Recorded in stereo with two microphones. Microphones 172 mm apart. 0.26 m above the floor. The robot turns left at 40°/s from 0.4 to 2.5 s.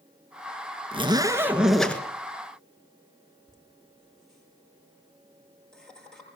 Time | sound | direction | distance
0.9 | a zipper | 145° right | 1.8 m
3.5 | laughter | 5° left (ahead or behind) | 7.5 m